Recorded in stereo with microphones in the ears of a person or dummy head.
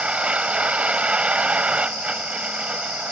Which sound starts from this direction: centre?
A vehicle, at 0.0 s.